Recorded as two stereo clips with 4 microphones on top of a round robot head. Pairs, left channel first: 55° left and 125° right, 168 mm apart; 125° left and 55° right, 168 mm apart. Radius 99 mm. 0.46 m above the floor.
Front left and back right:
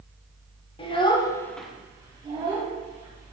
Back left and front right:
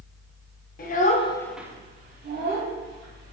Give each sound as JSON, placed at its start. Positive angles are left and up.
{"t": 0.8, "sound": "a child speaking", "azimuth_deg": 110, "distance_m": 0.9}